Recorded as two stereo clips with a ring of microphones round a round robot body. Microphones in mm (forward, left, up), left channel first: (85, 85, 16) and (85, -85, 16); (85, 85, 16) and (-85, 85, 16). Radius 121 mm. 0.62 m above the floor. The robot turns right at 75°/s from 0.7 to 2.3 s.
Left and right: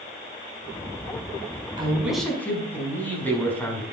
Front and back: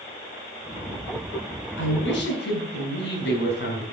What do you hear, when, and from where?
1.8 s a man speaking: 30° right, 5.5 m; by 3.8 s 10° left, 5.5 m